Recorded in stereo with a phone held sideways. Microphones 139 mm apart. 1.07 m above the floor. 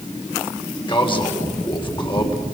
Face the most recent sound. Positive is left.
turn(degrees=35)  # may be behind; listen again after turning